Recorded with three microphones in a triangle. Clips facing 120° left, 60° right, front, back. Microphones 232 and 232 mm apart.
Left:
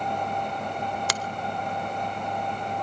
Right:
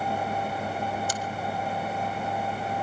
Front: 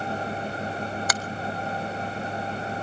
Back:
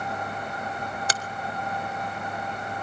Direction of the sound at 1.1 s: 120° left.